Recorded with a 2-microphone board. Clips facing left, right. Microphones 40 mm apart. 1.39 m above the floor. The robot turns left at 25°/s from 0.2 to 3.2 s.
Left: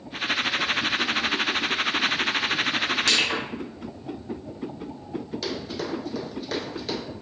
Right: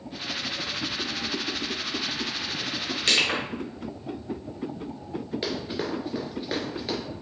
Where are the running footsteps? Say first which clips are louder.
Right 2 dB; 25° right (ahead or behind), 1.5 m; by 7.0 s 5° right (ahead or behind), 1.5 m.